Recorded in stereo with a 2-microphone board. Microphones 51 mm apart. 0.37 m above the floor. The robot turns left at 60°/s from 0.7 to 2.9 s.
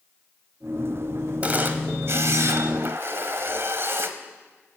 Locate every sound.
1.4 s a camera shutter: 30° right, 1.0 m; by 4.1 s 115° right, 1.0 m